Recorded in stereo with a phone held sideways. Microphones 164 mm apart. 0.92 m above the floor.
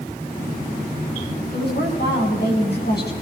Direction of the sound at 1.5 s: 85° left.